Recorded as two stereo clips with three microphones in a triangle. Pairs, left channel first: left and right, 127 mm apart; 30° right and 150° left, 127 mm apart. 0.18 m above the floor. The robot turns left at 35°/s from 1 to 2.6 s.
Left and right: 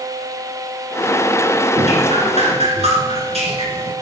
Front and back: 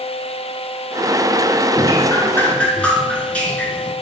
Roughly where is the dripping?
Right.